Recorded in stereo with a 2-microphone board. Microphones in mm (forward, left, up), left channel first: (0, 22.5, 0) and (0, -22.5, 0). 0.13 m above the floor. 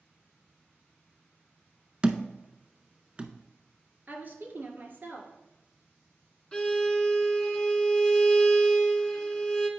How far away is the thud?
About 0.5 m.